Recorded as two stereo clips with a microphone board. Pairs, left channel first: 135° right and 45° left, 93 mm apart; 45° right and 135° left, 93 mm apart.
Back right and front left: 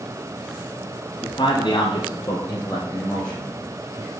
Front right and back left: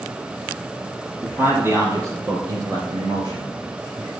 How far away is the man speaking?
About 2 m.